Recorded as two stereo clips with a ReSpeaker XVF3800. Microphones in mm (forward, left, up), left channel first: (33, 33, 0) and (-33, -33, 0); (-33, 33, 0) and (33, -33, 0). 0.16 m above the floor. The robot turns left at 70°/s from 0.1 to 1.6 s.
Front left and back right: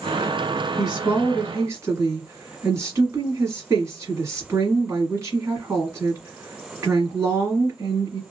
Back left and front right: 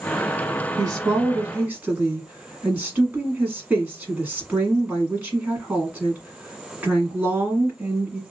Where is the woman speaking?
50° right, 1.5 m; by 8.2 s 105° right, 1.5 m.